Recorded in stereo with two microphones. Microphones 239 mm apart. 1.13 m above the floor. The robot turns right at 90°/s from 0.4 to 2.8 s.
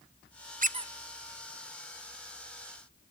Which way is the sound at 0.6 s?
35° right (ahead or behind).